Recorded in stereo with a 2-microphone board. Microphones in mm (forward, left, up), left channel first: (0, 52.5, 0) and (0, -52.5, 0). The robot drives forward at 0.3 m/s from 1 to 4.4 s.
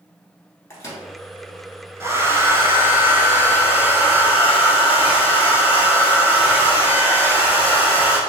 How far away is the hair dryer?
About 0.5 m.